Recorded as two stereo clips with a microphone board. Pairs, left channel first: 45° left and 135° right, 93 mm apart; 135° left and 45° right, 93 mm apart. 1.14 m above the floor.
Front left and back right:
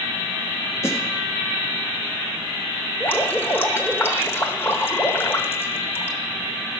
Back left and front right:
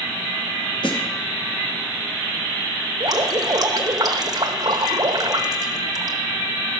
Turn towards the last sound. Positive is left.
turn(degrees=-15)